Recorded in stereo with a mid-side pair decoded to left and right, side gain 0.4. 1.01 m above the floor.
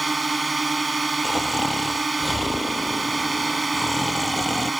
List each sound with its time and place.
0.0 s a drone: 25° right
1.2 s snoring: 15° left